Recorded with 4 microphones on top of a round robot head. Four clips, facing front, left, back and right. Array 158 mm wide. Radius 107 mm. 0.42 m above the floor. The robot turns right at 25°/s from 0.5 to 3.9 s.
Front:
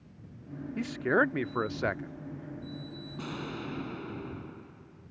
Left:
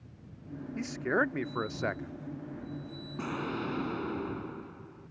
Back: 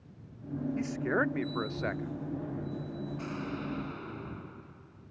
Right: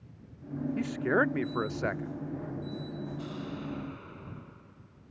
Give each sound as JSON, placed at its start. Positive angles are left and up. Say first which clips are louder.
{"t": 0.8, "sound": "a man speaking", "louder": "right 2 dB, front 5 dB", "azimuth_deg": -50}
{"t": 3.2, "sound": "an explosion", "louder": "left 4 dB, front 4 dB", "azimuth_deg": 65}